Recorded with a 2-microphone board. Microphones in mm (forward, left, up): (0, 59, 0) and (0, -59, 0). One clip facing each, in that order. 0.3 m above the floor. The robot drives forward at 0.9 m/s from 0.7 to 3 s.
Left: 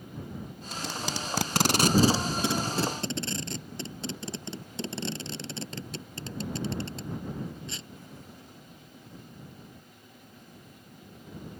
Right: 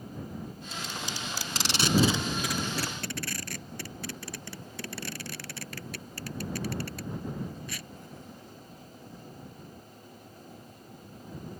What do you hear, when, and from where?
0.7 s tape being pulled: 65° left (ahead or behind); by 7.9 s 20° left (ahead or behind)